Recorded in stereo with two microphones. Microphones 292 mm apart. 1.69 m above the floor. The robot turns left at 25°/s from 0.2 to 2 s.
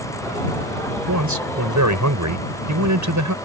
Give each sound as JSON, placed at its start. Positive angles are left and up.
{"t": 1.1, "sound": "a man speaking", "side_deg": -80}